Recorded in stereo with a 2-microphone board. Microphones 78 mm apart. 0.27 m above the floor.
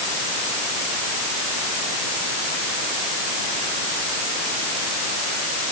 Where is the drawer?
I don't hear a drawer.